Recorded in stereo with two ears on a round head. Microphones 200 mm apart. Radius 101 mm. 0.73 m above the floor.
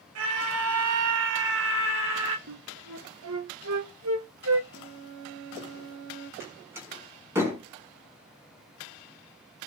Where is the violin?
75° right (ahead or behind), 2 m.